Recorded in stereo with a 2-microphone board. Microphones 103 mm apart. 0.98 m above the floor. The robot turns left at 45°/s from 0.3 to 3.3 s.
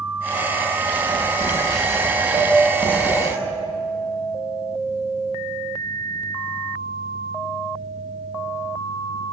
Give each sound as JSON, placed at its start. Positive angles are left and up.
{"t": 0.8, "sound": "writing", "azimuth_deg": -105, "distance_m": 8.5}
{"t": 2.3, "sound": "a piano", "azimuth_deg": -80, "distance_m": 4.5}